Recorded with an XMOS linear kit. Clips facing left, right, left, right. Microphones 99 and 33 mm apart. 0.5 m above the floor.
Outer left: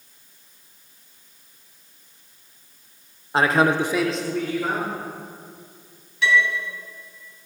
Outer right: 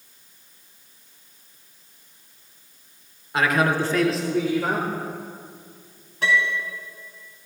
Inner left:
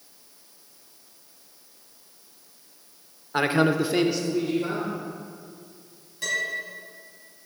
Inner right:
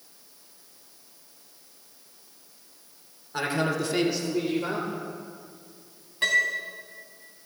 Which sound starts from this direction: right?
A piano, at 6.2 s.